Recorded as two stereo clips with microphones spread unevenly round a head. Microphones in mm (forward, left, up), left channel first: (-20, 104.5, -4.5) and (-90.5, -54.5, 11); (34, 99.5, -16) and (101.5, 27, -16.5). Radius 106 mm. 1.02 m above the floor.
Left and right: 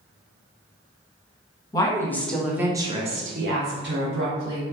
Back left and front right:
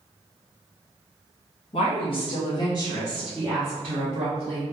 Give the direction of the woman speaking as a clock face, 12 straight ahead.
8 o'clock.